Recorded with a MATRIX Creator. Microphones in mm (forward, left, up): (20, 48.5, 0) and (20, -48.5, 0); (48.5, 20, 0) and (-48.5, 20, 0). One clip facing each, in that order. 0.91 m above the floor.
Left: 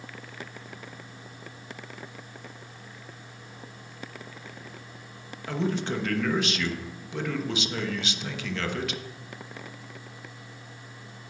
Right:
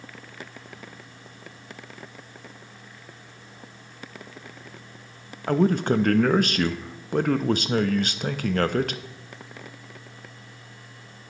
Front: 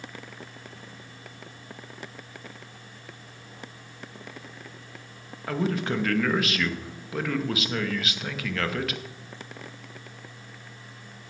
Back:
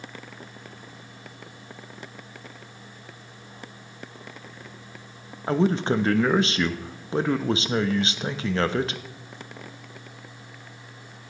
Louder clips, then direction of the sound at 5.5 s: Right 8 dB, back 5 dB; 125° right.